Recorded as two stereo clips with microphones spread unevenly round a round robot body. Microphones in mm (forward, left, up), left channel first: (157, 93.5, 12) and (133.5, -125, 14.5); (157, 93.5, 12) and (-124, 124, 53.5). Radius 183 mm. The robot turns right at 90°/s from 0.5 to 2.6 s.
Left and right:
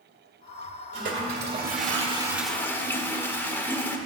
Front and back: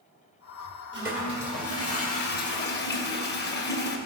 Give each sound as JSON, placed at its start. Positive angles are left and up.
{"t": 0.9, "sound": "a toilet flushing", "azimuth_deg": -145, "distance_m": 1.5}